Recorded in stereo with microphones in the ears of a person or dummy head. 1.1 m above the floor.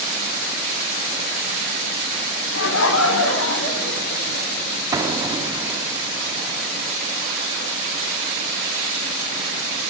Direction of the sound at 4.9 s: 20° right (ahead or behind).